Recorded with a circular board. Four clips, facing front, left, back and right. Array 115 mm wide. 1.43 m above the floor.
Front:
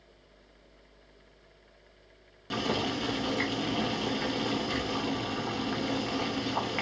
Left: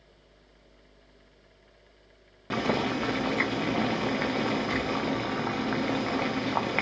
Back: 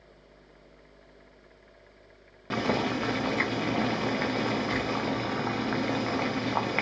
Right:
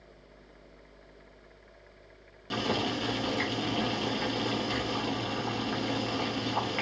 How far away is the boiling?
About 0.8 m.